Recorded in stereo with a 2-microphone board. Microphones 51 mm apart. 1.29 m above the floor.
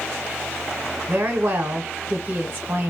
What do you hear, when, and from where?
1.1 s a woman speaking: 55° right (ahead or behind), 0.9 m